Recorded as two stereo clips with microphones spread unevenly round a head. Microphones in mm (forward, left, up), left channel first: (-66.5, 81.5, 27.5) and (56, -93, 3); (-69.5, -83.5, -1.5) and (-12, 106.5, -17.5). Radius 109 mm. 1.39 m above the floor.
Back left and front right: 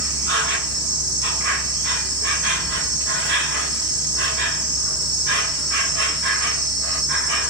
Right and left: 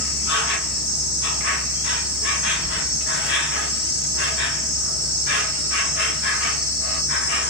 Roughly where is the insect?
Right.